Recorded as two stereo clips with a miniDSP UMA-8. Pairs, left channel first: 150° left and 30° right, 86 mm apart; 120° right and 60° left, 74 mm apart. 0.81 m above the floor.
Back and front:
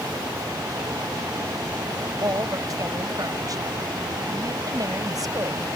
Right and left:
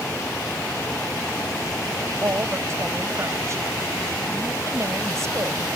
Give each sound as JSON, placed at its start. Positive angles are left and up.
{"t": 2.0, "sound": "a woman speaking", "azimuth_deg": 10}